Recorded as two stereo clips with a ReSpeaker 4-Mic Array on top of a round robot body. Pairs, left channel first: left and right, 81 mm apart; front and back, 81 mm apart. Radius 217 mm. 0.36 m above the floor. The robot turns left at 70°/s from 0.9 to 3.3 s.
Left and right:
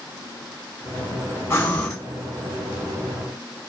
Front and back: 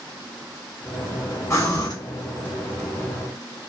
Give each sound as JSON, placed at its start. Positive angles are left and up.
{"t": 1.5, "sound": "breathing", "azimuth_deg": 40, "distance_m": 1.7}